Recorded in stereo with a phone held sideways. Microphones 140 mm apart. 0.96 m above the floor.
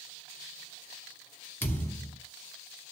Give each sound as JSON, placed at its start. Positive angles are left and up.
{"t": 1.6, "sound": "a thud", "side_deg": 15, "distance_m": 1.9}